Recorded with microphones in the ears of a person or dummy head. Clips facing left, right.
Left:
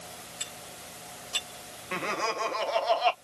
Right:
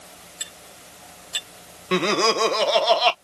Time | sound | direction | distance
0.4 | cutlery clinking | 20° right (ahead or behind) | ?
1.9 | laughter | 65° right (ahead or behind) | ?